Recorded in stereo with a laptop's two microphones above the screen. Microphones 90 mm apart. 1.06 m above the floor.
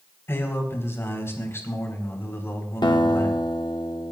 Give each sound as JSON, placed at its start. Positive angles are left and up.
{"t": 0.3, "sound": "a man speaking", "side_deg": 30, "distance_m": 4.0}
{"t": 2.8, "sound": "a guitar", "side_deg": 60, "distance_m": 1.3}